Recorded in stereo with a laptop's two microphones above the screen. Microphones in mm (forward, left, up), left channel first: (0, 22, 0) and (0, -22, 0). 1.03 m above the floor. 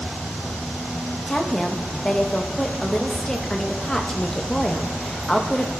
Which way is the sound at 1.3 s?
15° left (ahead or behind).